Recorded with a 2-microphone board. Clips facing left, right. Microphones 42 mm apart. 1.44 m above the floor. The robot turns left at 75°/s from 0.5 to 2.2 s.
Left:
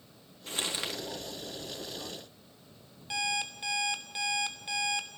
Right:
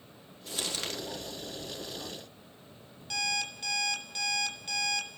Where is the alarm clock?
20° left (ahead or behind), 2.5 m.